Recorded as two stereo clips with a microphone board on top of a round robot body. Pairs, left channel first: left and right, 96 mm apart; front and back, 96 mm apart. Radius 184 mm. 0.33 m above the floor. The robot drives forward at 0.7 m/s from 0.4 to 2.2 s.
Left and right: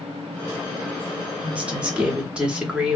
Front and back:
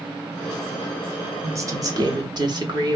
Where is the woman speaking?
150° right, 1.2 m; by 3.0 s 165° right, 1.5 m.